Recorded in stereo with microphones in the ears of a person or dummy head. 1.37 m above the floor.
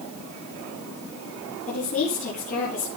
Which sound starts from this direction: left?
A woman speaking, at 1.7 s.